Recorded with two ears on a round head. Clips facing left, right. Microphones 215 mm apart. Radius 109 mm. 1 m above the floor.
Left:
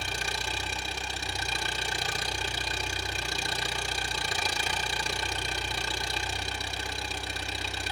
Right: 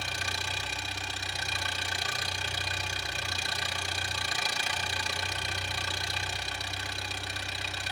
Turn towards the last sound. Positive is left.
turn(degrees=85)